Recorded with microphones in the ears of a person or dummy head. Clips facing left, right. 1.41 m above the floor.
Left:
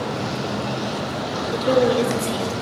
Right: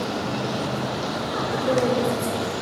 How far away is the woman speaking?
About 0.7 m.